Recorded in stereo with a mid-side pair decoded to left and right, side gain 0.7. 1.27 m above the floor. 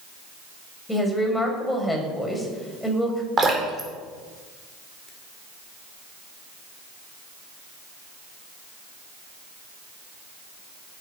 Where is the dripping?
25° right, 4.5 m.